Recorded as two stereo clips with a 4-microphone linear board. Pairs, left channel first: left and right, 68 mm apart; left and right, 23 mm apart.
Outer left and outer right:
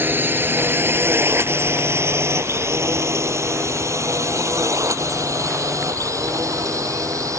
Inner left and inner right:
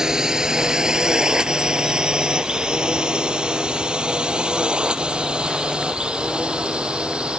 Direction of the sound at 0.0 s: 30° right (ahead or behind).